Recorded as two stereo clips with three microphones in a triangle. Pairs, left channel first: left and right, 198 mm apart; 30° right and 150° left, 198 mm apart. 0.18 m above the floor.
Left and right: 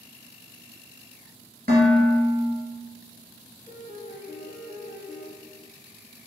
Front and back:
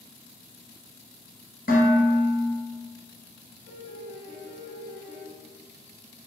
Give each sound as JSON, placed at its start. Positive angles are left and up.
{"t": 1.7, "sound": "dishes clattering", "azimuth_deg": -60, "distance_m": 1.5}
{"t": 3.7, "sound": "a piano", "azimuth_deg": -125, "distance_m": 2.0}